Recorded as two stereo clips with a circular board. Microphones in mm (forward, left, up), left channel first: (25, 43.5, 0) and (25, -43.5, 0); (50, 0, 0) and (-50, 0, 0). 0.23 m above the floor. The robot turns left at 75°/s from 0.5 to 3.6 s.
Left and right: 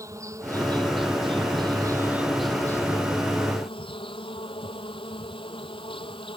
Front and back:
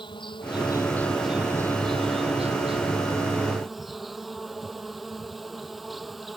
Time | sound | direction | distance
0.0 | an insect | 35° right | ?